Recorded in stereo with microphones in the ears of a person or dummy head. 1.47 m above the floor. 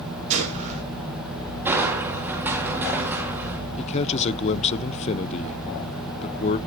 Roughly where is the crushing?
Centre.